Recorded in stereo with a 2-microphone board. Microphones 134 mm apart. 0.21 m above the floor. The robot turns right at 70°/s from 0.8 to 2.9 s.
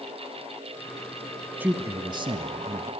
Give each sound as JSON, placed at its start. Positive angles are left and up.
{"t": 1.6, "sound": "a man speaking", "azimuth_deg": -160, "distance_m": 1.4}